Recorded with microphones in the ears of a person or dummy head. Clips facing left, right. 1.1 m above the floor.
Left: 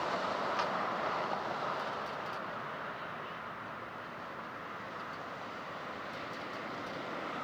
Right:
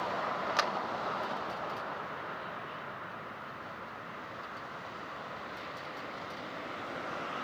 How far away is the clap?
About 0.6 m.